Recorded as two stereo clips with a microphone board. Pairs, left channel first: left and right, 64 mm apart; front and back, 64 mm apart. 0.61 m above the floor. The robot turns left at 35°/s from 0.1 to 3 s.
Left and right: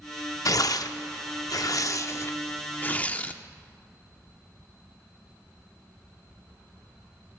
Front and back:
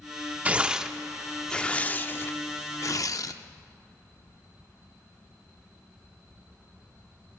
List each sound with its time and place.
0.5 s tearing paper: 110° left, 0.5 m; by 3.3 s 25° left, 0.5 m